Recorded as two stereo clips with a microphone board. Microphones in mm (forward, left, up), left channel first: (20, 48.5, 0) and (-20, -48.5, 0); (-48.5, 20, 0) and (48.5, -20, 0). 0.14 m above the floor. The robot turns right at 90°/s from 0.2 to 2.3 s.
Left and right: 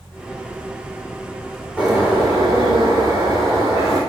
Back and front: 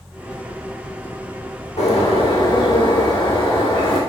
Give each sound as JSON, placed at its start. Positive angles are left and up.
{"t": 1.8, "sound": "a bird", "azimuth_deg": 145, "distance_m": 3.0}